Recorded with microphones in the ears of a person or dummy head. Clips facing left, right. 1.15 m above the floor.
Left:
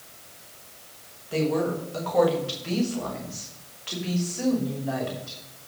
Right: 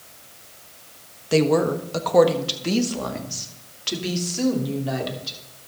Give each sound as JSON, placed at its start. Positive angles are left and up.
{"t": 1.3, "sound": "a woman speaking", "side_deg": -80, "distance_m": 1.3}